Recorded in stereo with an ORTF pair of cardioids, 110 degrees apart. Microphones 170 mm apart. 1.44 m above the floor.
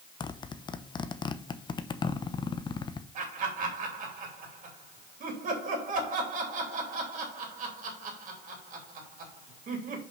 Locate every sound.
0.2 s a zipper: 25° left, 0.7 m
3.1 s laughter: 50° right, 3 m